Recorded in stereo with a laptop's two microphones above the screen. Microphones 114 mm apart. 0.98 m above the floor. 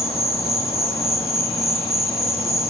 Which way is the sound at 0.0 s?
60° left (ahead or behind).